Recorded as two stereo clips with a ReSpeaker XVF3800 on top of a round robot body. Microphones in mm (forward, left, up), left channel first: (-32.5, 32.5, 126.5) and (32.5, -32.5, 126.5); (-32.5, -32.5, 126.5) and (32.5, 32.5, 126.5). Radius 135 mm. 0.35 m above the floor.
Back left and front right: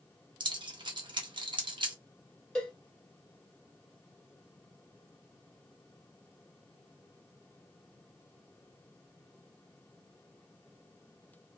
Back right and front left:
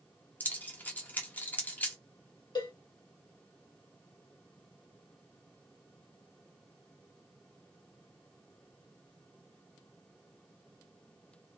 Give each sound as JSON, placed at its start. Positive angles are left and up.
{"t": 0.4, "sound": "keys jangling", "azimuth_deg": -65, "distance_m": 1.0}
{"t": 2.5, "sound": "a cowbell", "azimuth_deg": -145, "distance_m": 2.0}